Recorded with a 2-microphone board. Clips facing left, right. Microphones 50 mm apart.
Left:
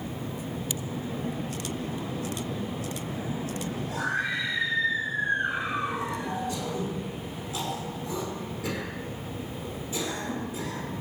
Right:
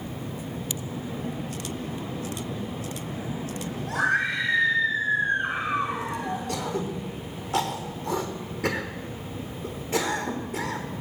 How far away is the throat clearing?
About 3 m.